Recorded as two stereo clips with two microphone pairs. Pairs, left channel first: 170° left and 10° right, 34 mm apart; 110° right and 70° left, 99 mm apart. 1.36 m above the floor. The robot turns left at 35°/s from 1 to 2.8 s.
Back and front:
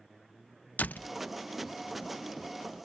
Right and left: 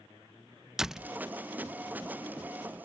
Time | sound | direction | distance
0.8 | a door slam | 155° left | ?